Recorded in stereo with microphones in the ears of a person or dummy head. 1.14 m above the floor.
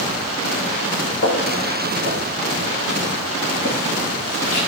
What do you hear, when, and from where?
1.2 s footsteps: 55° left (ahead or behind), 4 m; by 4.7 s 60° left (ahead or behind), 7 m